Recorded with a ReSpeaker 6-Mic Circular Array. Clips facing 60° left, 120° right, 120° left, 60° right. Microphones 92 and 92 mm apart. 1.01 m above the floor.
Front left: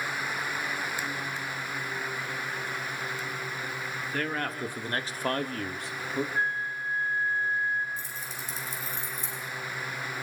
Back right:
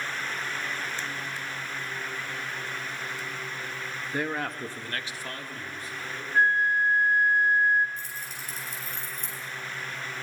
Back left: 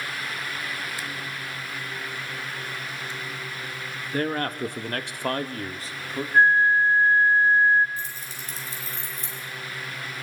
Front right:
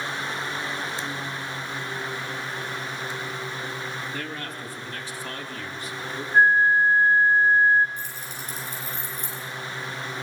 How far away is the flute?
About 1.4 m.